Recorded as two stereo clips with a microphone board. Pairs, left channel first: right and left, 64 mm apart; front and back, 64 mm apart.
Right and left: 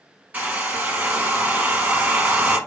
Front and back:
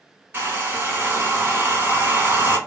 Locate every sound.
0.3 s a hair dryer: 145° left, 1.3 m